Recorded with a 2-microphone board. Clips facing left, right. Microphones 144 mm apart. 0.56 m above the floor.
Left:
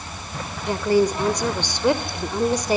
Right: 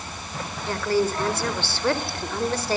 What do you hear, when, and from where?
0.7 s a woman speaking: 20° left (ahead or behind), 1.8 m